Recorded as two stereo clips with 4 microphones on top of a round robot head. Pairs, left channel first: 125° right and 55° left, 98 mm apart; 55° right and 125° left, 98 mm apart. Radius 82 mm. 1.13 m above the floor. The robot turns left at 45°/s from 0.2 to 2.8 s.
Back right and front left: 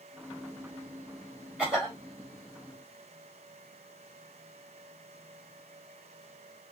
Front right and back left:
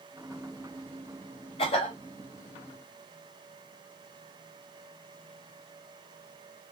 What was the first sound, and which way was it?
A cough, 20° right.